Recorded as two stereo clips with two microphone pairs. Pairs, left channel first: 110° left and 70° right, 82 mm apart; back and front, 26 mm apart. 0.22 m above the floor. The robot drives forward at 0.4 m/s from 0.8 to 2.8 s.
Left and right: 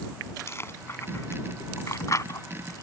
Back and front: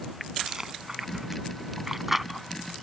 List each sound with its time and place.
0.5 s chewing: 60° left; by 2.8 s 90° left